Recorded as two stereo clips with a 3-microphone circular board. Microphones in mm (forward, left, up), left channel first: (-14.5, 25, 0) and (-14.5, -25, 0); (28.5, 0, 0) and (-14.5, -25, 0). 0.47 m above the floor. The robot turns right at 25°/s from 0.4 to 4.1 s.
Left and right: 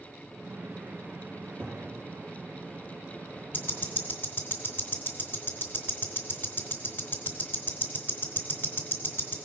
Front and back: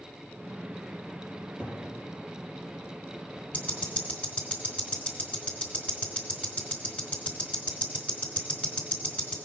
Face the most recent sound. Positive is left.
turn(degrees=75)